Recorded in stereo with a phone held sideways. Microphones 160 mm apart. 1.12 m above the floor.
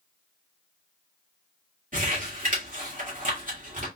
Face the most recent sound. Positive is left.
turn(degrees=-60)  # may be behind; listen again after turning